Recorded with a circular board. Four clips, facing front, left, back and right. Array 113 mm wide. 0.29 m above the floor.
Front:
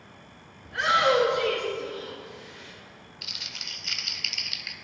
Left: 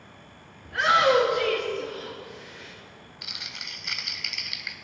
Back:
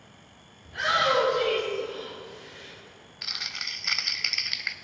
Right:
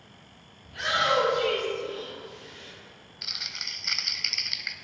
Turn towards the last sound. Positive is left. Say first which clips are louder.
# right 1 dB, back 7 dB
turn(degrees=-175)